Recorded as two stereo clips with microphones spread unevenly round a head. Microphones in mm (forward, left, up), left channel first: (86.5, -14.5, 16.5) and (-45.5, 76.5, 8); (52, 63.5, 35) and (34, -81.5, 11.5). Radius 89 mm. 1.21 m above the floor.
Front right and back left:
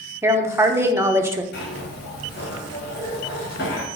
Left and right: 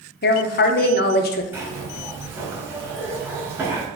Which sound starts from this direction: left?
A woman speaking, at 0.2 s.